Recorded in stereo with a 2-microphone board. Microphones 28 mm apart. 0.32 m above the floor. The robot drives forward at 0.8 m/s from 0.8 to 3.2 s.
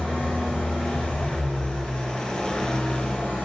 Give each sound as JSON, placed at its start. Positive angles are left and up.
{"t": 0.0, "sound": "an engine running", "side_deg": 65, "distance_m": 3.0}